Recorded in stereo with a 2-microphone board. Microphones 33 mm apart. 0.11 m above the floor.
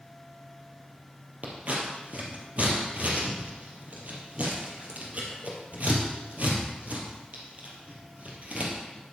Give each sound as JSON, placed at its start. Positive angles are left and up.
{"t": 1.4, "sound": "scissors", "side_deg": -45, "distance_m": 3.0}